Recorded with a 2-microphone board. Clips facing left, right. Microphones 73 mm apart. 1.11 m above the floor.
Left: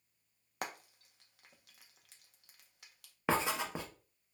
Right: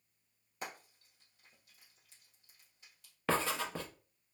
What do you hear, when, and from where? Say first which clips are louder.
0.6 s frying: left 3 dB; 75° left (ahead or behind), 0.5 m
3.3 s writing: left 1 dB; 15° left (ahead or behind), 0.6 m